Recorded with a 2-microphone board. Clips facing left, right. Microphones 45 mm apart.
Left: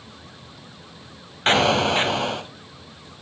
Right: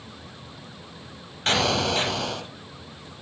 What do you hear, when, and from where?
1.5 s an explosion: 30° left (ahead or behind), 0.9 m